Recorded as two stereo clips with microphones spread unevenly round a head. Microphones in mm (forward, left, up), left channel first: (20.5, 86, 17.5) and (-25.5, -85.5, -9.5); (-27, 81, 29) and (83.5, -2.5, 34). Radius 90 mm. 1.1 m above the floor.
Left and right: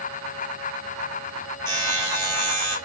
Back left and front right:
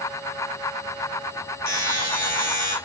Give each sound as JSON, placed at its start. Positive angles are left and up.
{"t": 1.7, "sound": "a buzzer", "azimuth_deg": 145, "distance_m": 1.3}